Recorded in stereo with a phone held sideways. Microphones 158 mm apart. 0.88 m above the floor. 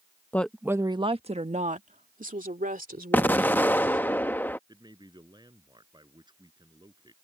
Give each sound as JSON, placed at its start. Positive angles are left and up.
{"t": 0.3, "sound": "a woman speaking", "side_deg": 10}
{"t": 3.1, "sound": "an explosion", "side_deg": 10}
{"t": 4.7, "sound": "a man speaking", "side_deg": -25}